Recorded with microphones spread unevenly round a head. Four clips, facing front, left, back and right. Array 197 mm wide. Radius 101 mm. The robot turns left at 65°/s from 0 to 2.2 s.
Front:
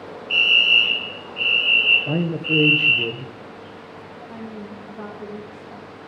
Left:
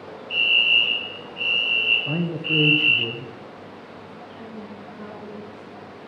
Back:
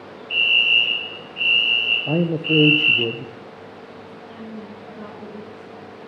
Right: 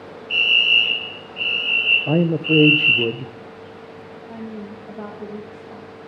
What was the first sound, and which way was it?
A fire alarm, 10° left.